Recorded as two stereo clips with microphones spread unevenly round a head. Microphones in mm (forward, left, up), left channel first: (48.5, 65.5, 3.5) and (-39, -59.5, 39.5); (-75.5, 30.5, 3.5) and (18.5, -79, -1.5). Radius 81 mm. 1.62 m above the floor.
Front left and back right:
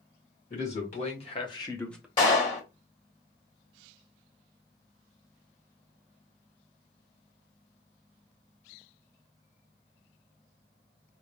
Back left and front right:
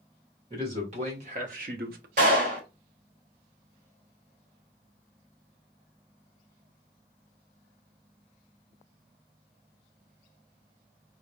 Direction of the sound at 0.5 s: 10° left.